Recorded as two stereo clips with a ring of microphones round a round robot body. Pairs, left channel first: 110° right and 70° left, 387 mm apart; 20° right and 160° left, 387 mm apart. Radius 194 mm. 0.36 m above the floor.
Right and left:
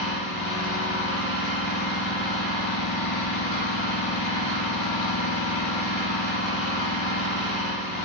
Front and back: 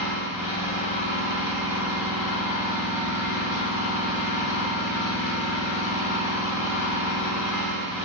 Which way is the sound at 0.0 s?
125° right.